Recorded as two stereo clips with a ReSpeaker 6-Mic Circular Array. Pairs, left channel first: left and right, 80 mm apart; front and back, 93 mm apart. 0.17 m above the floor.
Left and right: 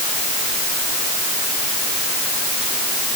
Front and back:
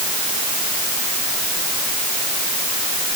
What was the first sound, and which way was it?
Only background noise.